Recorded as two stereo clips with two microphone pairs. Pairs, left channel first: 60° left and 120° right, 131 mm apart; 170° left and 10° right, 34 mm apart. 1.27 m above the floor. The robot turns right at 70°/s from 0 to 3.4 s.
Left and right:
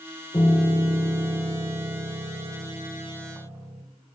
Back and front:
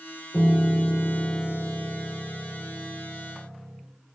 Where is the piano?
115° left, 2.5 m; by 3.8 s 30° right, 2.5 m.